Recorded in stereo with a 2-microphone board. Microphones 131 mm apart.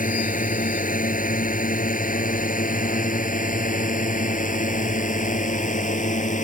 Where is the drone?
80° left; by 6.4 s 65° left (ahead or behind).